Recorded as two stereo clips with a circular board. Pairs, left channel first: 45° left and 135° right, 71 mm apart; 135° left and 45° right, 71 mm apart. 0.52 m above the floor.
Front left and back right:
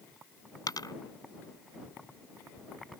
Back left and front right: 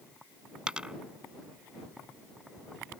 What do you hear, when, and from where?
0.7 s a dropped coin: 30° left